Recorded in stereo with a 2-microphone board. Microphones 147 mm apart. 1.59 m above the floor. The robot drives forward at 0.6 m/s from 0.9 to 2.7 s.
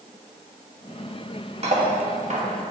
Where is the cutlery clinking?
45° right (ahead or behind), 1.5 m; by 2.5 s 55° right (ahead or behind), 1.3 m.